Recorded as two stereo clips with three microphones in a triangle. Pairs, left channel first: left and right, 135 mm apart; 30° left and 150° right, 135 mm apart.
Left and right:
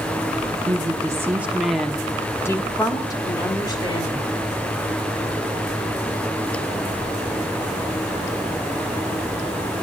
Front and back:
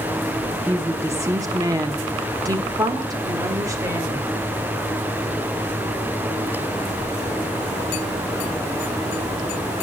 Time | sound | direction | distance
0.7 | a woman speaking | 85° right | 0.9 m